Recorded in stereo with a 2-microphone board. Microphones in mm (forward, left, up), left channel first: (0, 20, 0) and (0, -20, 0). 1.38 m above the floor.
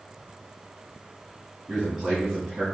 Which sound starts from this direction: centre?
A man speaking, at 1.7 s.